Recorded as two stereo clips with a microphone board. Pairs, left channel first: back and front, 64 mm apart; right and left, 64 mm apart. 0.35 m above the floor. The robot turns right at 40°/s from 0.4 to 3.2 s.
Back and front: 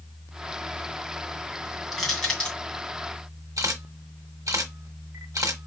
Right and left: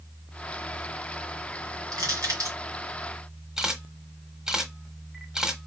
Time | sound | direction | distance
1.9 | crushing | 90° left | 2.5 m
3.6 | a camera shutter | 10° left | 1.0 m